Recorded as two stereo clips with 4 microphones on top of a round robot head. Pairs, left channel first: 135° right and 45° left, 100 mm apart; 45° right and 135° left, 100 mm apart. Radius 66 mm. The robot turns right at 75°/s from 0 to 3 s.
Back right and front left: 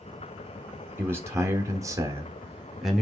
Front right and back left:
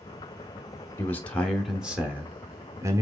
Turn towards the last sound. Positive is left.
turn(degrees=145)